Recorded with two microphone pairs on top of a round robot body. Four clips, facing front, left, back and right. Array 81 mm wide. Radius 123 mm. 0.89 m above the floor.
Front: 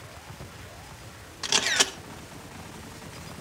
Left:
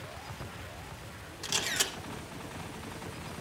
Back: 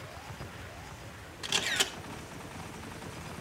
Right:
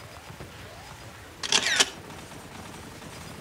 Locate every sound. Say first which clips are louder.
1.4 s a camera shutter: right 8 dB, front 6 dB; 45° right, 1.1 m